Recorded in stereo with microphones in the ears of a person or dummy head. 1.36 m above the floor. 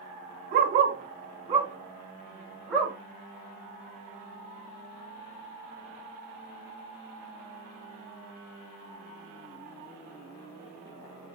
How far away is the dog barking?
About 1.8 m.